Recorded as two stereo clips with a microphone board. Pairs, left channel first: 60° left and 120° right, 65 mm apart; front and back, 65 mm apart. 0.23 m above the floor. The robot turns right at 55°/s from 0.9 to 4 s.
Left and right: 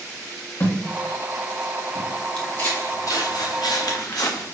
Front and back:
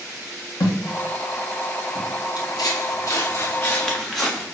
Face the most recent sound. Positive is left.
turn(degrees=90)